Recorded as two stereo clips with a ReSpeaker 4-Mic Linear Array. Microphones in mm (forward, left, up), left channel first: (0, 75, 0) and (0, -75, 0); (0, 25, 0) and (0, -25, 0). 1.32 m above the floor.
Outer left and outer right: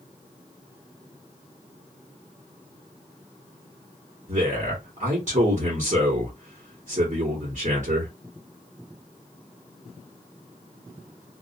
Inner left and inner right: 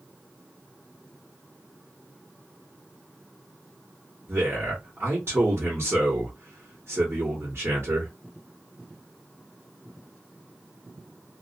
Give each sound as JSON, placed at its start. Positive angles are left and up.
{"t": 4.3, "sound": "a man speaking", "side_deg": -55, "distance_m": 1.1}